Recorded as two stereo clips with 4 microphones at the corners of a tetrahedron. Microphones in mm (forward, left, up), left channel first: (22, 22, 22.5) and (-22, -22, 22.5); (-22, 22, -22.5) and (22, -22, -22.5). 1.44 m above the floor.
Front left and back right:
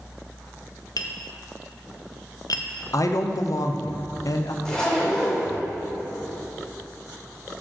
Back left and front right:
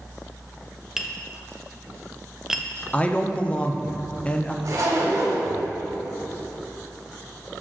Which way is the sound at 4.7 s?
35° right.